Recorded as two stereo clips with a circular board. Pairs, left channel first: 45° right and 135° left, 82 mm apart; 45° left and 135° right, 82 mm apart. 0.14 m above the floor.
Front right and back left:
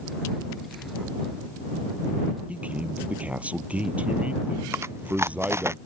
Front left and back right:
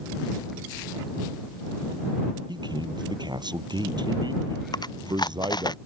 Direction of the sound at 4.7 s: 80° left.